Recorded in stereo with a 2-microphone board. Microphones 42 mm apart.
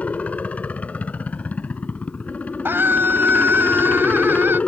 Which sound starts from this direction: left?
A helicopter, at 0.0 s.